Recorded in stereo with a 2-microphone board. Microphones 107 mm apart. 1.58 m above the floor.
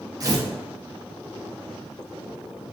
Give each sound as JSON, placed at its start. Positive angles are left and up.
{"t": 0.2, "sound": "tearing paper", "side_deg": -35, "distance_m": 0.5}